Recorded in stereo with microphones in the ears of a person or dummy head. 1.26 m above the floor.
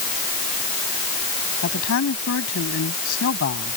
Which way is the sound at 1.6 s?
75° left (ahead or behind).